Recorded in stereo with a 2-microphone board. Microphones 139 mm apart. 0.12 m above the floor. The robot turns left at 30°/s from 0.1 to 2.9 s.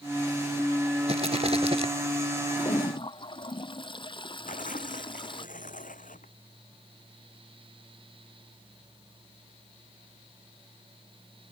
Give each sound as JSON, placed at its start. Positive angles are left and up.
{"t": 1.1, "sound": "a rattle", "side_deg": -50}
{"t": 2.6, "sound": "a toilet flushing", "side_deg": 25}
{"t": 4.5, "sound": "tearing paper", "side_deg": 70}